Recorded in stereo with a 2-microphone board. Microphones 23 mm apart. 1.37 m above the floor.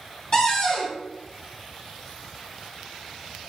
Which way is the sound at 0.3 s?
25° left (ahead or behind).